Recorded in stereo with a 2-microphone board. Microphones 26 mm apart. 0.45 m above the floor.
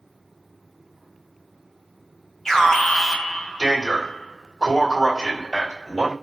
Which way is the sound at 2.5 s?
10° left (ahead or behind).